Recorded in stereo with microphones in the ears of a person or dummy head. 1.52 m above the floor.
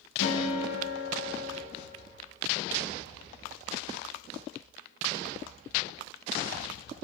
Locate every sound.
0.2 s a guitar: 70° left (ahead or behind), 0.7 m